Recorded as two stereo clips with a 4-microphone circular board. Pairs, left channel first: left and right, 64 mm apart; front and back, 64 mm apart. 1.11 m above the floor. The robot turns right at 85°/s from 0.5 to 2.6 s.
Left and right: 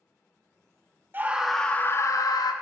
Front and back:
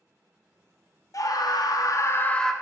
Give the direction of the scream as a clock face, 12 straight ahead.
1 o'clock.